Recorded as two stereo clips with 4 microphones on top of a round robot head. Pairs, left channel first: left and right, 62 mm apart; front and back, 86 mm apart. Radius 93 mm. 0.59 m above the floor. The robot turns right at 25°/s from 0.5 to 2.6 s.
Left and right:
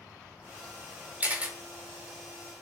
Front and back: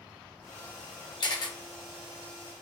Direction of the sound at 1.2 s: 30° right.